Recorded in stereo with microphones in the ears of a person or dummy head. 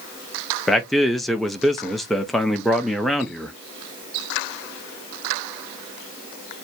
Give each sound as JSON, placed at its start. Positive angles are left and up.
{"t": 0.7, "sound": "a man speaking", "side_deg": 0, "distance_m": 0.6}